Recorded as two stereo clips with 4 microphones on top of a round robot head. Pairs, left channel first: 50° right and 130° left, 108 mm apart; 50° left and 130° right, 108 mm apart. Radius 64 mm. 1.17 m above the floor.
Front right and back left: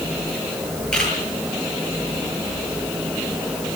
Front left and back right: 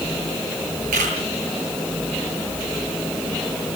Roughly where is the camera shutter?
Behind right.